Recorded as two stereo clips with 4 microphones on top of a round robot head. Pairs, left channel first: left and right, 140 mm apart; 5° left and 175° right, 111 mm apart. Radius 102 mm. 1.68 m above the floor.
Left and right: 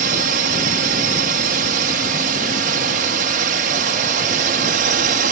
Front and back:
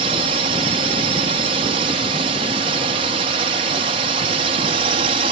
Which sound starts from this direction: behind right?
A drone, at 0.0 s.